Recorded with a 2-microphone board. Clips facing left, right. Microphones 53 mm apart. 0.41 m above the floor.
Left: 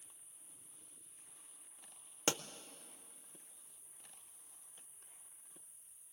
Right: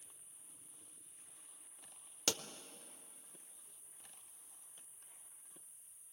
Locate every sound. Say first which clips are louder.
0.0 s an insect: even; 75° right (ahead or behind), 6.5 m
2.3 s a pop: left 3 dB; 25° left (ahead or behind), 0.6 m